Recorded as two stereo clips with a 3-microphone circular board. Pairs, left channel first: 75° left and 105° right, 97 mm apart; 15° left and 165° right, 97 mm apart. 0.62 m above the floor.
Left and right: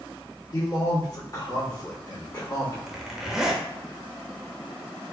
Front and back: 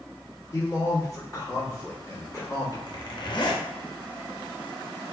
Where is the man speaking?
45° left, 1.4 m.